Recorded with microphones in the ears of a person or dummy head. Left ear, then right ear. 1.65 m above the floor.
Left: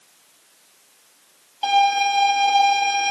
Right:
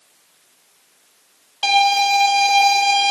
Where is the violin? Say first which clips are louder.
Right 2 dB; 50° right (ahead or behind), 2.5 m.